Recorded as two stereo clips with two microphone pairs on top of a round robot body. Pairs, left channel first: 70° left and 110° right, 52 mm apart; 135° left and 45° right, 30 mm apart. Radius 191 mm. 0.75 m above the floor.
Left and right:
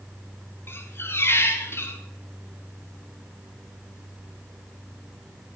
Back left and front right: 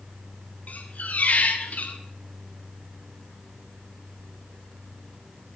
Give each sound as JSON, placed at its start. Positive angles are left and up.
{"t": 0.7, "sound": "a squeak", "azimuth_deg": 110, "distance_m": 1.8}